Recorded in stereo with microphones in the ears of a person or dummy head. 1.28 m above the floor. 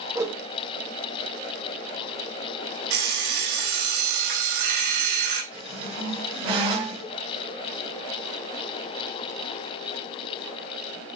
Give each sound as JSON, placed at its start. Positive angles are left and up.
{"t": 0.1, "sound": "a whoosh", "side_deg": -10, "distance_m": 0.6}
{"t": 2.9, "sound": "an alarm clock", "side_deg": -55, "distance_m": 1.9}
{"t": 5.5, "sound": "a squeak", "side_deg": -25, "distance_m": 1.8}